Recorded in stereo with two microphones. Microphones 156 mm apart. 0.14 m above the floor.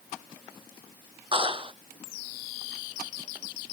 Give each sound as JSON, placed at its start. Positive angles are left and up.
{"t": 1.3, "sound": "a clap", "side_deg": -30}